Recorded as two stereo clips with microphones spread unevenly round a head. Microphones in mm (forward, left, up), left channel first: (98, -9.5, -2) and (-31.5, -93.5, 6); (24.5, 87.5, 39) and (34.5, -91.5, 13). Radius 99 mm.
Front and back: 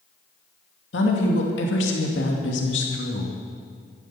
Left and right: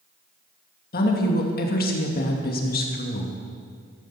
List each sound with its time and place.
0.9 s a woman speaking: 55° left, 2.5 m